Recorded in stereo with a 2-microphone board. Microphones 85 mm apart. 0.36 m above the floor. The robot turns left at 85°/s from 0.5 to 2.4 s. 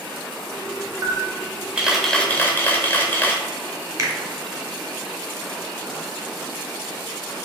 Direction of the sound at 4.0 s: 35° right (ahead or behind).